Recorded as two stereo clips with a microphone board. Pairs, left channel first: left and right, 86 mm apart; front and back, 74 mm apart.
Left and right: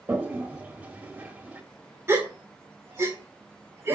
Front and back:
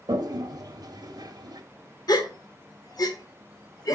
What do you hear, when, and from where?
0.1 s a toilet flushing: 165° right, 0.8 m
2.1 s a gasp: 30° right, 1.1 m